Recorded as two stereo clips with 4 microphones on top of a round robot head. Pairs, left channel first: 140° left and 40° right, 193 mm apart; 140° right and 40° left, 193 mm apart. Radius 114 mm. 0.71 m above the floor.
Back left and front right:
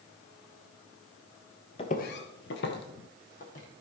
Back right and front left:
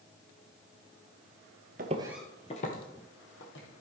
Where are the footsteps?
80° left, 1.0 m; by 3.7 s 165° right, 2.5 m.